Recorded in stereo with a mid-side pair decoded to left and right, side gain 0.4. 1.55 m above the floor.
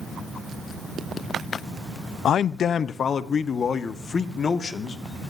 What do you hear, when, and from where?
2.2 s a man speaking: 70° left, 0.7 m; by 5.0 s 50° left, 2.5 m